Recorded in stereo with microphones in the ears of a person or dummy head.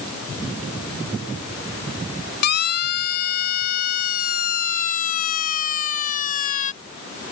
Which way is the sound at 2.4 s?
55° left (ahead or behind).